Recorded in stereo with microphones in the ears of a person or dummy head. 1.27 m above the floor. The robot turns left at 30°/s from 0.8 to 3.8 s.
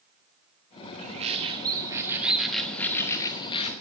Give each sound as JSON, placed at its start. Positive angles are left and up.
{"t": 1.0, "sound": "a bird", "azimuth_deg": -135, "distance_m": 0.9}